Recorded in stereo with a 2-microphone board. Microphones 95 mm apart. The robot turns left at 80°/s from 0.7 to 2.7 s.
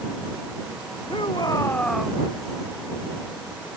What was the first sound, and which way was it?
A shout, 75° left.